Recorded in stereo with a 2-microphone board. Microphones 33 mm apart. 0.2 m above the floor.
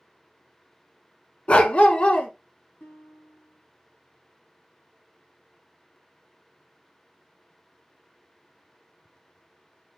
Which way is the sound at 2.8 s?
60° left (ahead or behind).